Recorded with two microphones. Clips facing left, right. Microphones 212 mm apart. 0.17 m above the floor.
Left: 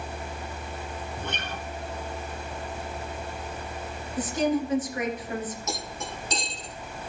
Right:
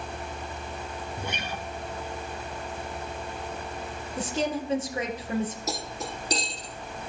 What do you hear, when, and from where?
1.2 s a guitar: 10° right (ahead or behind), 1.2 m
4.2 s a woman speaking: 25° right (ahead or behind), 2.5 m
5.7 s cutlery clinking: 35° right (ahead or behind), 3.5 m